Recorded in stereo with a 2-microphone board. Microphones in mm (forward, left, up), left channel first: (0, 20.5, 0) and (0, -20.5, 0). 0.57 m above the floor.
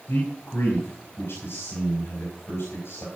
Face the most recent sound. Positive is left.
turn(degrees=75)  # may be behind; listen again after turning